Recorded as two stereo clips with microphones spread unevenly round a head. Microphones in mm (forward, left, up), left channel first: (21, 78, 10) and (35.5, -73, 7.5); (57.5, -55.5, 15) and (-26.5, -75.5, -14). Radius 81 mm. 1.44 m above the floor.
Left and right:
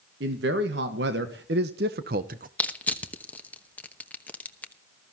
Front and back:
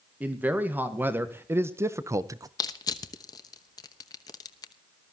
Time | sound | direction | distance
0.2 | a man speaking | 95° right | 1.7 m
2.6 | crushing | 20° left | 1.0 m